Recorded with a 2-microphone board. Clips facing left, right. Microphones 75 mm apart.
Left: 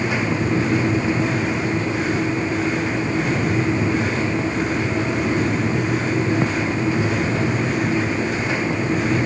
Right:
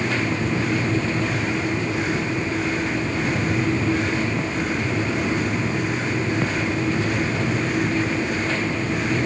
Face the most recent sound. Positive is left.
No sound to turn to.